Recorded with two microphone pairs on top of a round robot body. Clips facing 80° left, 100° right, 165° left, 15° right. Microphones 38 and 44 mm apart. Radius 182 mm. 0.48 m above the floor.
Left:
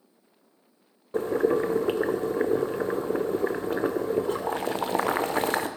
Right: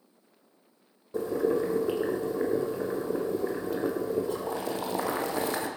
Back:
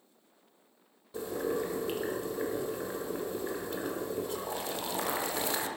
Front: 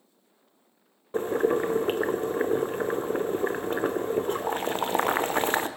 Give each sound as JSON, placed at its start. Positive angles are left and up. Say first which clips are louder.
{"t": 1.1, "sound": "boiling", "louder": "left 3 dB, front 9 dB", "azimuth_deg": 35, "distance_m": 1.0}